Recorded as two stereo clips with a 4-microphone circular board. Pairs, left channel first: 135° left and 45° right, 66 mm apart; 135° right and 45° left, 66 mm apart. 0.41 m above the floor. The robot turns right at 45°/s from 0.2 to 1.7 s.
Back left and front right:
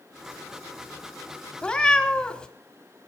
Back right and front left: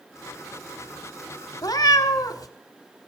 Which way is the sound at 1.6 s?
150° right.